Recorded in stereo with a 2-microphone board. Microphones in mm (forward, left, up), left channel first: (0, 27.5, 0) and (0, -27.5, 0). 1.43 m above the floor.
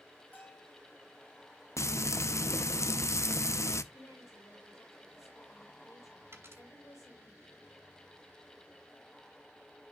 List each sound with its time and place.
0.3 s a bell: 35° left (ahead or behind), 2.5 m
1.8 s frying: 60° left (ahead or behind), 0.5 m
3.9 s a woman speaking: 85° left, 4 m
6.3 s a dropped coin: 55° right (ahead or behind), 2.5 m